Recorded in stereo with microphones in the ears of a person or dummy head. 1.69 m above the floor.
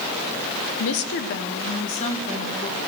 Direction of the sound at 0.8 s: 70° left (ahead or behind).